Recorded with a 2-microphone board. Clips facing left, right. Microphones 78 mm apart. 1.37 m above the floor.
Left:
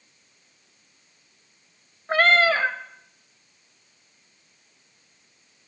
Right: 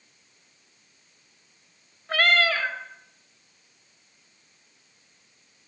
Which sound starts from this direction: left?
A cat meowing, at 2.1 s.